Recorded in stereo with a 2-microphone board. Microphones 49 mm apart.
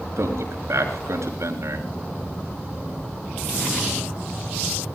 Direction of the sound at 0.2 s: 80° right.